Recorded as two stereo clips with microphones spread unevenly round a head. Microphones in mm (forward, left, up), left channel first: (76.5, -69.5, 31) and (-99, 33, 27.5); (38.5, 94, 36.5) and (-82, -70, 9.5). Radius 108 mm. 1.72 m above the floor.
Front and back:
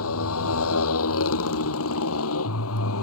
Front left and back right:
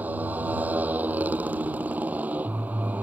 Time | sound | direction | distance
0.0 | a motorcycle | 45° right | ?